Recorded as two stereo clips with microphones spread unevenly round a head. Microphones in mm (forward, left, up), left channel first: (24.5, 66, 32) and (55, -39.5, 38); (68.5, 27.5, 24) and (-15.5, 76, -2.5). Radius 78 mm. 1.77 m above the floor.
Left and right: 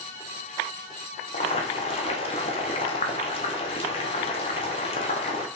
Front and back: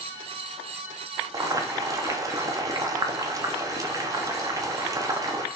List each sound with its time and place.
1.3 s boiling: 95° left, 0.7 m